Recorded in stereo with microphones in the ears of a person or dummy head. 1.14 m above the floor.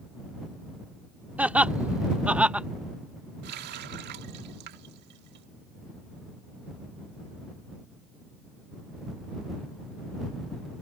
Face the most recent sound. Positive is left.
turn(degrees=-55)  # may be behind; listen again after turning